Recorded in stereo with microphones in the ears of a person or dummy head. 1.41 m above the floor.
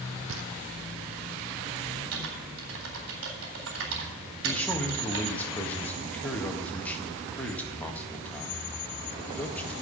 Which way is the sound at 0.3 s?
65° right (ahead or behind).